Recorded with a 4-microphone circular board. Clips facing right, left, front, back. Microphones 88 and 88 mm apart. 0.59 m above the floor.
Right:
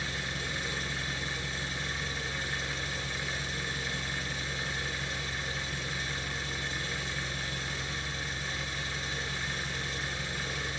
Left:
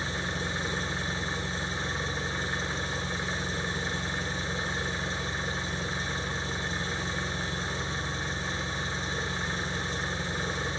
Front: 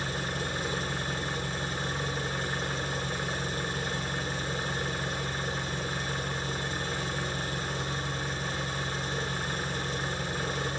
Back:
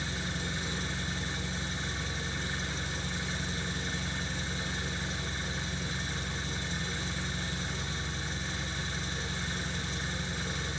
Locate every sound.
0.0 s an engine running: 30° left, 1.5 m